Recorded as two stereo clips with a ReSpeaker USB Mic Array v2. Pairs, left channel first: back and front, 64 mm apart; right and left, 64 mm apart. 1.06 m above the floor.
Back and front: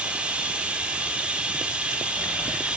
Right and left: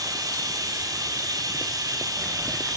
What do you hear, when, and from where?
0.0 s running water: 70° left, 3 m